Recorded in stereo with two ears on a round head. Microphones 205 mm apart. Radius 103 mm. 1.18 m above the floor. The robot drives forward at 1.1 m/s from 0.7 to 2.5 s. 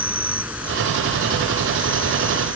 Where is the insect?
5° right (ahead or behind).